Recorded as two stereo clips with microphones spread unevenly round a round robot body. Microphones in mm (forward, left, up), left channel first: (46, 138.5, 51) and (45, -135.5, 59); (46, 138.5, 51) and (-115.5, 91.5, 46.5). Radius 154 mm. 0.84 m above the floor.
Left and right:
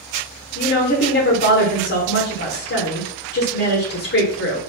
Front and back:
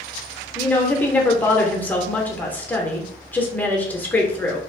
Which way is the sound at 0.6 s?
95° left.